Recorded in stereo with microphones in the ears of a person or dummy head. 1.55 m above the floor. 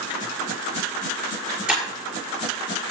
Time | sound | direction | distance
1.7 | breaking glass | centre (ahead or behind) | 6.5 m